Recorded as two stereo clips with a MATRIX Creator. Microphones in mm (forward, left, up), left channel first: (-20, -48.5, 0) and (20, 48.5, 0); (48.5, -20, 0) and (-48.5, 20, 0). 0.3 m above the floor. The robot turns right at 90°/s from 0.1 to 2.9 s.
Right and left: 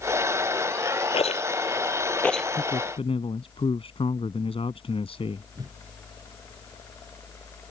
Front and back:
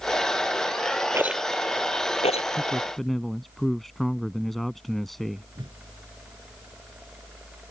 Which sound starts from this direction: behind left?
A whoosh, at 5.5 s.